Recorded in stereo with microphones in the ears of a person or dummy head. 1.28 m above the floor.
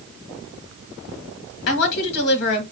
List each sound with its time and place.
1.7 s a woman speaking: 60° left (ahead or behind), 1.5 m